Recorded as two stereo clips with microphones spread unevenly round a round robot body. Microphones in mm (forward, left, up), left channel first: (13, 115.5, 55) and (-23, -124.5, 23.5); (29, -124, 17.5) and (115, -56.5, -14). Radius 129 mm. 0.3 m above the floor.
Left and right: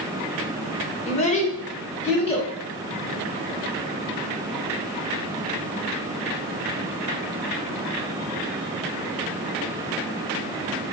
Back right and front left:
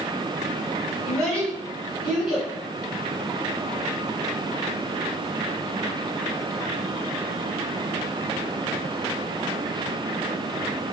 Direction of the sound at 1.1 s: 55° left.